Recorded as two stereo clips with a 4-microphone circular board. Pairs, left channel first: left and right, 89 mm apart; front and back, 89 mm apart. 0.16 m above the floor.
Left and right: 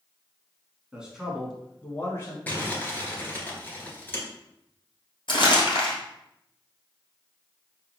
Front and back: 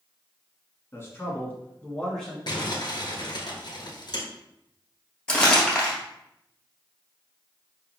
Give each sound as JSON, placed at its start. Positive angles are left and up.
{"t": 0.9, "sound": "a man speaking", "azimuth_deg": -20, "distance_m": 1.2}
{"t": 2.5, "sound": "crumpling", "azimuth_deg": 20, "distance_m": 1.1}
{"t": 5.3, "sound": "crumpling", "azimuth_deg": 75, "distance_m": 1.5}